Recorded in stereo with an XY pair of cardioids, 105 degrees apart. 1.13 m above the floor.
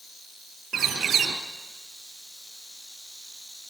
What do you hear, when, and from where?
0.7 s a bird: 60° right, 3 m